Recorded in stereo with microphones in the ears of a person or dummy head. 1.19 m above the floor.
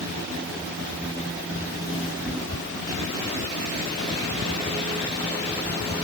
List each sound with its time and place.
Only background noise.